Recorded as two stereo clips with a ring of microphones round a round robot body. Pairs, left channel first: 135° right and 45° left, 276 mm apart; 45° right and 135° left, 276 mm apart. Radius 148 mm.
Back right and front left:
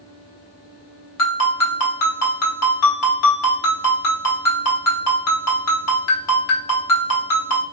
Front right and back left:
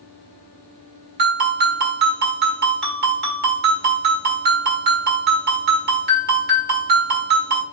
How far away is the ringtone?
About 1.5 m.